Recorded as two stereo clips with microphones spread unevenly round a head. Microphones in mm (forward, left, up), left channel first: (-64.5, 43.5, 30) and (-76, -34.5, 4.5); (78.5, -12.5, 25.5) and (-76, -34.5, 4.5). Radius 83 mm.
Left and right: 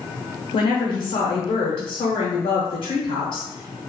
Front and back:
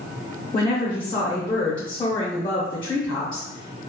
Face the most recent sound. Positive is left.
turn(degrees=70)